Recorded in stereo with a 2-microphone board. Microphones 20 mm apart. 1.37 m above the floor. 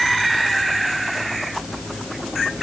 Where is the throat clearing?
I don't hear throat clearing.